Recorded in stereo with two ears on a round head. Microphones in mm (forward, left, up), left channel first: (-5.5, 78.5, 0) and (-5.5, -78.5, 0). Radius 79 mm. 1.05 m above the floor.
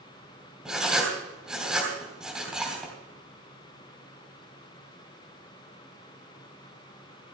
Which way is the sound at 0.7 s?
5° right (ahead or behind).